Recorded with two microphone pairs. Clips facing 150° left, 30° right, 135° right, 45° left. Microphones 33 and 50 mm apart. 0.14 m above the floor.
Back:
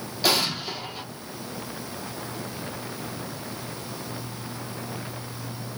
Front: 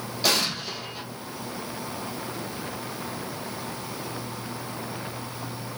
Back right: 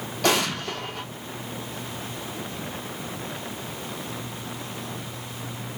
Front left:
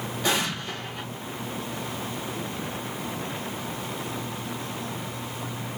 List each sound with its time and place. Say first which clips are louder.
0.2 s an explosion: back 1 dB, back right 4 dB; 125° right, 1.5 m